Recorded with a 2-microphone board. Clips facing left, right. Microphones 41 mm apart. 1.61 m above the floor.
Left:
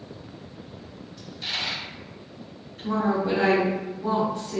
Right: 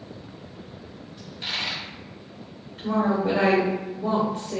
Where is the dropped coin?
25° right (ahead or behind), 0.9 m.